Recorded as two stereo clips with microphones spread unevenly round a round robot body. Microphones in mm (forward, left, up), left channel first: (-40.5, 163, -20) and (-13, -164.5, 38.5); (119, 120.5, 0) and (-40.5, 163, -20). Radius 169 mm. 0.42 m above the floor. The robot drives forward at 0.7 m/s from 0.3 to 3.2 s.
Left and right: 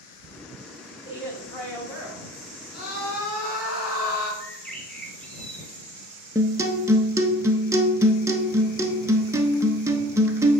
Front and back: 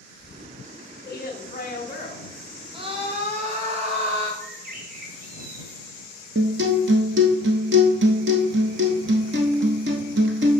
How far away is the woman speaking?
About 2 m.